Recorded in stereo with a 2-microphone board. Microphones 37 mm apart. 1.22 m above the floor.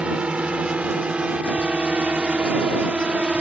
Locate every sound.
0.0 s a drone: 35° right (ahead or behind)